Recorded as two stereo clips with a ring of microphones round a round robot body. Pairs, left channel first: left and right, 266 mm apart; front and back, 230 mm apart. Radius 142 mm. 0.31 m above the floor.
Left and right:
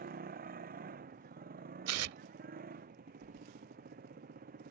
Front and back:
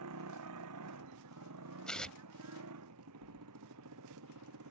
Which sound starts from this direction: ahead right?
Keys jangling, at 3.2 s.